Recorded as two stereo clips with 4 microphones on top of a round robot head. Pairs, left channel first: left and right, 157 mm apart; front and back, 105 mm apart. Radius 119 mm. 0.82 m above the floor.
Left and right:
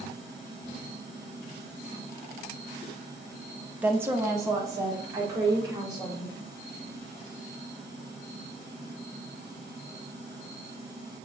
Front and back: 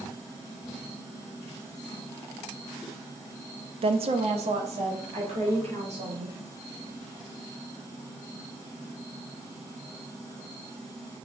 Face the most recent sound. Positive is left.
turn(degrees=-160)